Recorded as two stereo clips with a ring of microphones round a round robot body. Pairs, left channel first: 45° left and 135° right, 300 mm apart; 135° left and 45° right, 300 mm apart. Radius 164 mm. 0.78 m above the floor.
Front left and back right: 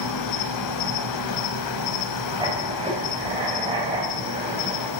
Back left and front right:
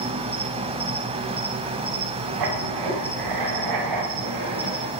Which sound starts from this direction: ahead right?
Writing, at 2.4 s.